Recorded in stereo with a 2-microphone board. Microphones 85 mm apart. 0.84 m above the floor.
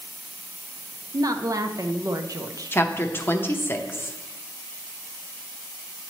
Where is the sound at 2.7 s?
25° left (ahead or behind), 0.7 m.